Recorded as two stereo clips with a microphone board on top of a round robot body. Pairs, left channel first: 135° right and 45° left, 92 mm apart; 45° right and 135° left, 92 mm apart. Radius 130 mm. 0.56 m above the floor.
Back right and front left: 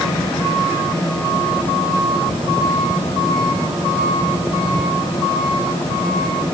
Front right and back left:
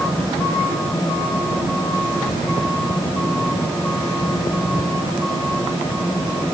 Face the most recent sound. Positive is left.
No sound to turn to.